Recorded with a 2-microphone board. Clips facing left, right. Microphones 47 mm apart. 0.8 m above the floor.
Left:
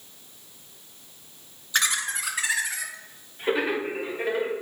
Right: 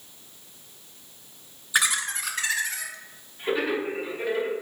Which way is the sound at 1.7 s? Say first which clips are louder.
Right 1 dB; 10° right (ahead or behind).